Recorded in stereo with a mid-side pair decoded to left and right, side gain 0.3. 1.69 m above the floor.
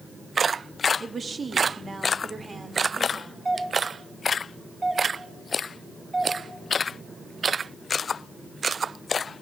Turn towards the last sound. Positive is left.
turn(degrees=-30)